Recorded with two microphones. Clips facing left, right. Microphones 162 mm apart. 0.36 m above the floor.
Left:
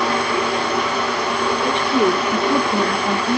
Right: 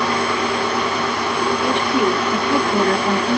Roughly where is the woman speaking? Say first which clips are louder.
Left 2 dB; left.